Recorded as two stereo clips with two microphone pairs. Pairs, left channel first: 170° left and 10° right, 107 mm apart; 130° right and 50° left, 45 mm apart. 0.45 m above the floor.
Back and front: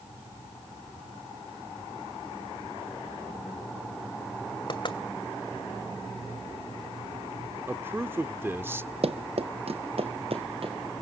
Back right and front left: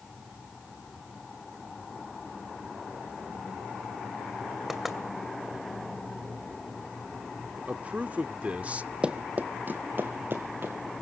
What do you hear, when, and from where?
4.7 s knocking: 135° left, 2.0 m
7.7 s a man speaking: 40° left, 0.8 m
9.0 s running footsteps: 15° right, 0.9 m; by 10.7 s 15° left, 2.5 m